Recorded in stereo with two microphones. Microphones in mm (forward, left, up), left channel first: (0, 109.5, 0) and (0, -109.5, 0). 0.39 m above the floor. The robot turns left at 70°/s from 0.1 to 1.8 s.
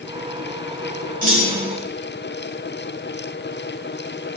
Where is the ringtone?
I don't hear a ringtone.